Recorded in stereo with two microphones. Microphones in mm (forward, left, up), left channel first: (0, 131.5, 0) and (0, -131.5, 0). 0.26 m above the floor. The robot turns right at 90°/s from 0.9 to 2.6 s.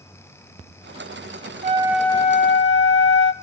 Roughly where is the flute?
Ahead right.